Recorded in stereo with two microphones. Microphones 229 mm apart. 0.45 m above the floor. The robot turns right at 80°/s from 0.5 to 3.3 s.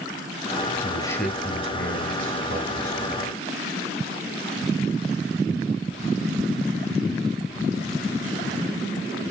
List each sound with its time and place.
0.8 s a man speaking: 145° left, 2.5 m; by 3.2 s 20° right, 2.5 m